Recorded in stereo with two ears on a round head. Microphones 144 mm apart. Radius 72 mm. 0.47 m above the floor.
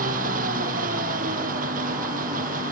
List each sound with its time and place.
0.0 s an engine running: 55° right (ahead or behind)